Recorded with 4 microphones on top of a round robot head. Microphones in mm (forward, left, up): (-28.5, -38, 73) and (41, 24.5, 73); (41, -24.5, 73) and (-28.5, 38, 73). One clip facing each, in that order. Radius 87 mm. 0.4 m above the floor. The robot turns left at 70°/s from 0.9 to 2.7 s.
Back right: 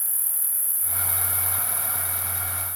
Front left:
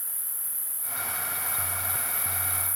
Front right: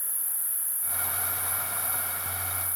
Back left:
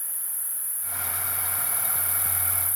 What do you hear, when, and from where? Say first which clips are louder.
0.0 s an insect: back right 2 dB, even; 120° right, 0.8 m; by 2.8 s 110° left, 0.8 m